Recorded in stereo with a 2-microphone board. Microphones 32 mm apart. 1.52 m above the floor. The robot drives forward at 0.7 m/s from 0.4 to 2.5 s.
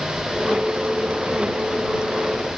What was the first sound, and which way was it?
Only background noise.